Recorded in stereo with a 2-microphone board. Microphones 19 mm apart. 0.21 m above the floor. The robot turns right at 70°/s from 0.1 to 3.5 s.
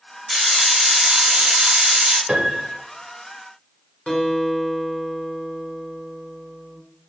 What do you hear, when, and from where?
0.3 s a hiss: 165° left, 1.5 m; by 2.2 s 60° right, 1.5 m
2.3 s a piano: 85° right, 0.9 m; by 2.8 s 45° right, 0.9 m
4.1 s a guitar: 65° left (ahead or behind), 1.2 m